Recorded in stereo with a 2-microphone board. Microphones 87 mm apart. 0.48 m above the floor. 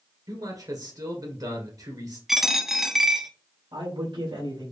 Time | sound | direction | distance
0.3 | a man speaking | 45° right (ahead or behind) | 1.8 m
2.3 | a dropped coin | 5° right (ahead or behind) | 0.7 m
3.7 | a man speaking | 65° right (ahead or behind) | 3 m